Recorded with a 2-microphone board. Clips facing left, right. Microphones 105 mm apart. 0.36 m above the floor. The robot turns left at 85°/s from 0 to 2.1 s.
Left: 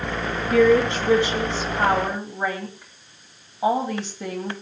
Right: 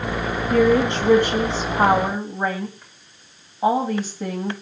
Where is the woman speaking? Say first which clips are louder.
Left 1 dB; 40° right, 2.5 m; by 4.5 s straight behind, 2.5 m.